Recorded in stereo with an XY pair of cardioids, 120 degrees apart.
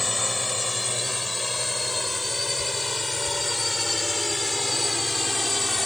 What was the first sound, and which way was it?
A drone, 15° left.